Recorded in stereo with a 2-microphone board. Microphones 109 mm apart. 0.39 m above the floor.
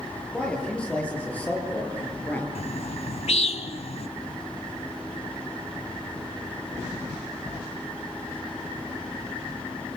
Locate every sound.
0.3 s a man speaking: 10° left (ahead or behind), 9 m; by 2.5 s 15° left (ahead or behind), 8.5 m
2.5 s a bird: 70° left (ahead or behind), 1.4 m